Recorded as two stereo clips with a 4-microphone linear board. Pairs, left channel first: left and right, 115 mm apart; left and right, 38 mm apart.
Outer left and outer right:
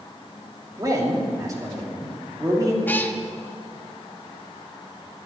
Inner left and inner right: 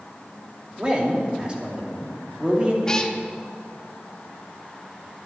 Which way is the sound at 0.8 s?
30° right (ahead or behind).